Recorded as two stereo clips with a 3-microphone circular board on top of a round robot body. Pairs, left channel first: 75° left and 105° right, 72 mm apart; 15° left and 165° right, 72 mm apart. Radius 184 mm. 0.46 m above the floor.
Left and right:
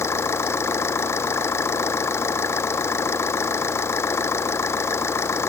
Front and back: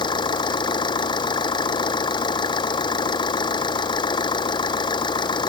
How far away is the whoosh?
I don't hear a whoosh.